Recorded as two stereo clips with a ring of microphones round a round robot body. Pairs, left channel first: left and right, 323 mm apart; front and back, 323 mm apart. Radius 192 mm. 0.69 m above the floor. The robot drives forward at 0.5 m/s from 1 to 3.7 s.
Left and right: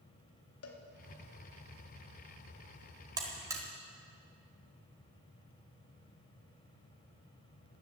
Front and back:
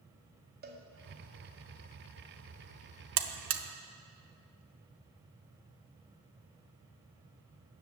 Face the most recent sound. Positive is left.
turn(degrees=-170)